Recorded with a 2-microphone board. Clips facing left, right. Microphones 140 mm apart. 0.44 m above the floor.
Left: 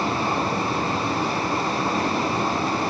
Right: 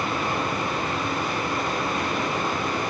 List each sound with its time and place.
0.0 s running water: 30° left (ahead or behind), 1.8 m